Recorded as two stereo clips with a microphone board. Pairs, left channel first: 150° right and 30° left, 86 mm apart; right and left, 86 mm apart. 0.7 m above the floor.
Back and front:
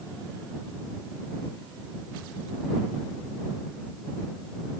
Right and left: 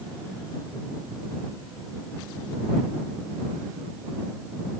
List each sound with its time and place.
Only background noise.